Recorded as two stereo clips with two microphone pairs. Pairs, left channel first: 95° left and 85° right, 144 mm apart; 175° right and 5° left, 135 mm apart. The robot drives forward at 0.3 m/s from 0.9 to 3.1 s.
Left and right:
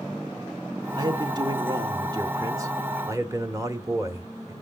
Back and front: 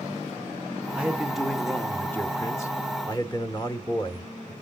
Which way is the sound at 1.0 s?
65° right.